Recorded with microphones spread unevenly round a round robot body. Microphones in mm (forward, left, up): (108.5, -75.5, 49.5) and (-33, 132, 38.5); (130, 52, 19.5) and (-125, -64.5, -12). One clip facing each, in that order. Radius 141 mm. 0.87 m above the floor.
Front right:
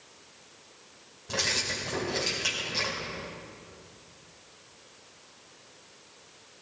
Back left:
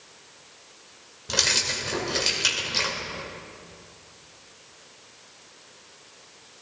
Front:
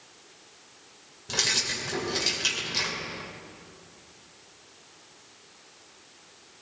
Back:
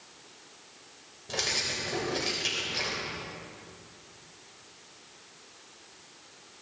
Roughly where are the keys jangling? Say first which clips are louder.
Back left 2 dB, front 1 dB; left.